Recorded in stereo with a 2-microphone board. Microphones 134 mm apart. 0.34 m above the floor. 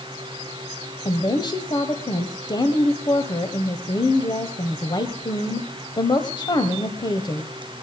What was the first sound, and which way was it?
A woman speaking, 35° left (ahead or behind).